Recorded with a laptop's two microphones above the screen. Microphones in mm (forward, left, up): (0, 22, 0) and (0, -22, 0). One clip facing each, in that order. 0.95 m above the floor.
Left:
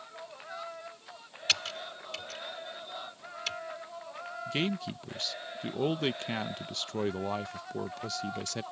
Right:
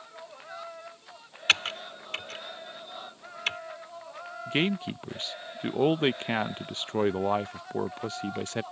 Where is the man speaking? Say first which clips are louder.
Right 5 dB; 30° right (ahead or behind).